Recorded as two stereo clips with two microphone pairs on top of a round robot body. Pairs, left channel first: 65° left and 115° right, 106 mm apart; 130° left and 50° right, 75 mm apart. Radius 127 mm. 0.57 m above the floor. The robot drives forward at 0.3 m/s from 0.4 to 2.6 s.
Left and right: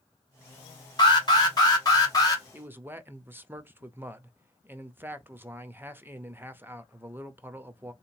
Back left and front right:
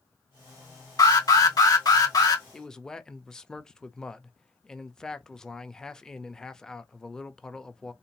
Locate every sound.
1.0 s an alarm: 100° left, 2.5 m; by 2.4 s 115° left, 2.5 m
2.5 s a man speaking: 160° right, 0.8 m